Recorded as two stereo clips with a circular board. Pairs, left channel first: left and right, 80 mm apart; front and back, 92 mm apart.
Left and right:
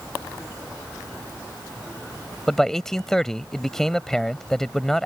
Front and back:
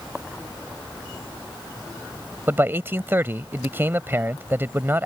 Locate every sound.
2.5 s a man speaking: 165° left